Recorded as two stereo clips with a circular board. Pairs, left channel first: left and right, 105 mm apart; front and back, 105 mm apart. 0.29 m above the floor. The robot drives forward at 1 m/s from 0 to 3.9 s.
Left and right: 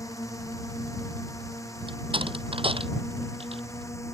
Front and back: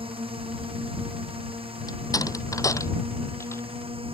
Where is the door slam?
55° right; by 3.6 s 65° right.